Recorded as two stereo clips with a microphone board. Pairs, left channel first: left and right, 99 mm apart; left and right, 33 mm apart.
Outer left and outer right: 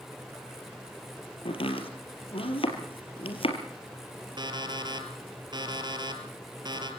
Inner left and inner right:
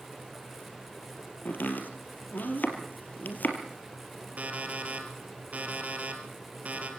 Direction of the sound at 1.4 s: 65° left (ahead or behind).